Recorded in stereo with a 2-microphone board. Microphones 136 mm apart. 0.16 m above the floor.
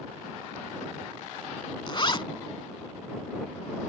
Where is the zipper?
35° left (ahead or behind).